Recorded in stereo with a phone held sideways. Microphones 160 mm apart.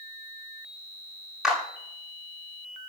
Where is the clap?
Centre (ahead or behind), 10 m.